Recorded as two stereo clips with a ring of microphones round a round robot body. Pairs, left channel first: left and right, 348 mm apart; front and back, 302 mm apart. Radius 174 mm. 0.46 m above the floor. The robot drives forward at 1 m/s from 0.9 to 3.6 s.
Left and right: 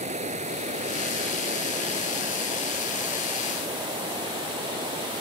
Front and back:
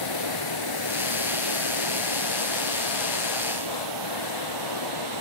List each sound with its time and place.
0.0 s running water: 160° right; by 5.2 s 165° right